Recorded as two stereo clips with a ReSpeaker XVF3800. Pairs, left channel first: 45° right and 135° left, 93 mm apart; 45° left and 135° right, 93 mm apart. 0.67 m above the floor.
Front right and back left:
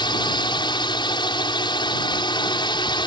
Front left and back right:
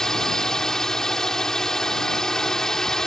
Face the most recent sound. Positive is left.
turn(degrees=-40)